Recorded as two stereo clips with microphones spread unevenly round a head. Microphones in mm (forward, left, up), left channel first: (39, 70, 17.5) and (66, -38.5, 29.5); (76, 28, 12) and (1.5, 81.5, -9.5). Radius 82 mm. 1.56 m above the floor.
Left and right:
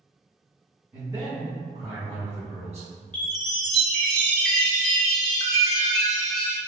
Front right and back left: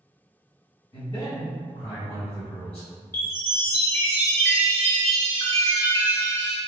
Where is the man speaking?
Straight ahead, 0.8 m; by 2.9 s 55° right, 1.4 m.